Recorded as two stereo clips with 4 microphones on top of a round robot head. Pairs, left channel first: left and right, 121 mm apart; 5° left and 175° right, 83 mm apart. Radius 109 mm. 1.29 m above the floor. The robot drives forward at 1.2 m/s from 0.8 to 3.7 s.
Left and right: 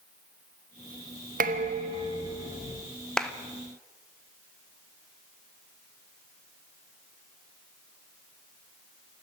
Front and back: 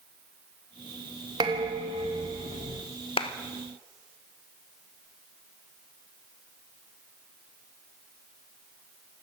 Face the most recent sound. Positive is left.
turn(degrees=10)